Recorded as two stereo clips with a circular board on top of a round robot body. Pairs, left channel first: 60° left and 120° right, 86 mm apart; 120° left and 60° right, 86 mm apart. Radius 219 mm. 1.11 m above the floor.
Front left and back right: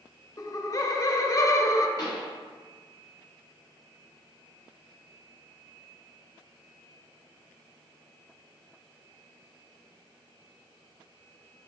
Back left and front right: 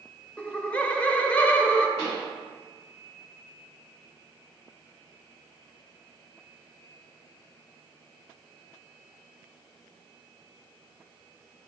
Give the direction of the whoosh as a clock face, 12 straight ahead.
No whoosh in this recording.